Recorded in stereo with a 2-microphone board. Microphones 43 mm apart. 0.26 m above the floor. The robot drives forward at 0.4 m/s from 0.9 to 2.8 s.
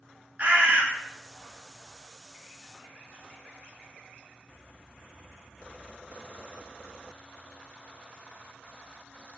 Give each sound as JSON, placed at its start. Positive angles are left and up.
{"t": 0.4, "sound": "a bird", "side_deg": -35, "distance_m": 0.6}